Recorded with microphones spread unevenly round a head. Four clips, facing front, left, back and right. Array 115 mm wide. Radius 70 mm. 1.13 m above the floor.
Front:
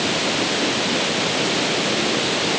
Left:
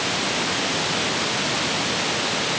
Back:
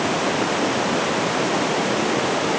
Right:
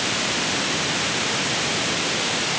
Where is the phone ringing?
I don't hear a phone ringing.